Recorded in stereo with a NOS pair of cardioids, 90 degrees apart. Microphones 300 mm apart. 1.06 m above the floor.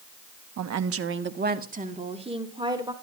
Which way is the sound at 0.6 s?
65° right.